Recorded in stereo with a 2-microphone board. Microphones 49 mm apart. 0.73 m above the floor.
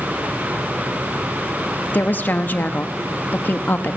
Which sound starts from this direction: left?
A woman speaking, at 1.9 s.